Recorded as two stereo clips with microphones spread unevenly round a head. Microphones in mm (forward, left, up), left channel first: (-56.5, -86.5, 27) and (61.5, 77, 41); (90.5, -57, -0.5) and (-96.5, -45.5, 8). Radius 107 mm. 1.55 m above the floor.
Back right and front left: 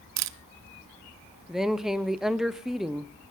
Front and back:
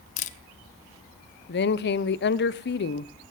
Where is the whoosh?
I don't hear a whoosh.